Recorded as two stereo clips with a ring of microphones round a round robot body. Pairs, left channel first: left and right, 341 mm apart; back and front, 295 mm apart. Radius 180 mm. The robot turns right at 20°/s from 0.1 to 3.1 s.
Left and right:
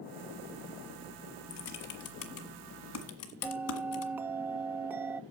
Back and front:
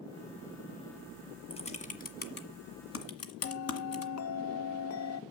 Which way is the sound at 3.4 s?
170° right.